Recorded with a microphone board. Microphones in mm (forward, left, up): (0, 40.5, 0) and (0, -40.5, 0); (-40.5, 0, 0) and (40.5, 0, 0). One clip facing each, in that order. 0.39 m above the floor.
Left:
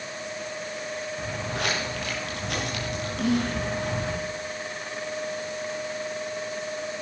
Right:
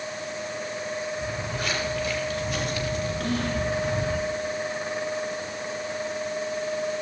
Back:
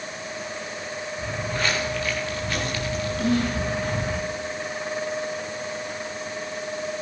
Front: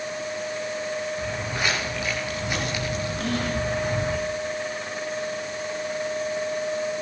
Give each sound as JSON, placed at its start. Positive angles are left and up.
{"t": 1.2, "sound": "footsteps", "azimuth_deg": 80, "distance_m": 9.0}
{"t": 3.2, "sound": "whispering", "azimuth_deg": 100, "distance_m": 10.0}